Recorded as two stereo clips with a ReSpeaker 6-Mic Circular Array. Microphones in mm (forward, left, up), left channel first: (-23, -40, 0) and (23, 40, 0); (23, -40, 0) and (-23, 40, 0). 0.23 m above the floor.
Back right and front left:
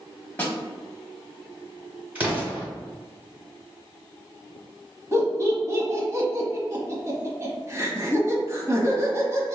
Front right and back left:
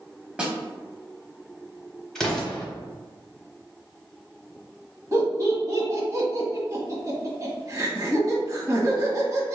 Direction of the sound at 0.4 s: 170° right.